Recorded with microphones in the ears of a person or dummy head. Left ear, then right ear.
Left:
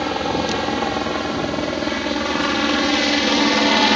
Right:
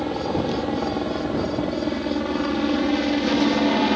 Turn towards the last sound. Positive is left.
turn(degrees=65)  # may be behind; listen again after turning